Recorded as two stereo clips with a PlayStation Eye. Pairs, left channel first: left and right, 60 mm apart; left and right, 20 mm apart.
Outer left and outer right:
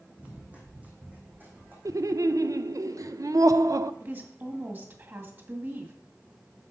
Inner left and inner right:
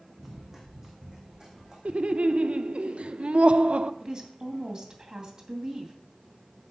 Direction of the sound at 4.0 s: 35° right (ahead or behind).